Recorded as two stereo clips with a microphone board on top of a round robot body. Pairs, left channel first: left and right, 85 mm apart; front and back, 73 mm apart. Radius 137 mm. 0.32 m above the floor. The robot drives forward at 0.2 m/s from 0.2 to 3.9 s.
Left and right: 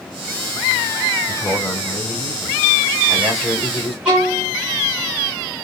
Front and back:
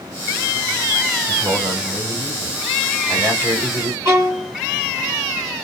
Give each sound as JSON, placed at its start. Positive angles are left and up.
{"t": 1.3, "sound": "a man speaking", "azimuth_deg": 170, "distance_m": 1.5}
{"t": 4.0, "sound": "a violin", "azimuth_deg": -165, "distance_m": 1.9}